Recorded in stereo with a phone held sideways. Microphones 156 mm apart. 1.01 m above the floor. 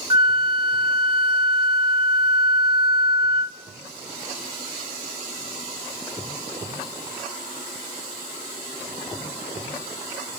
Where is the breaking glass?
No breaking glass in this recording.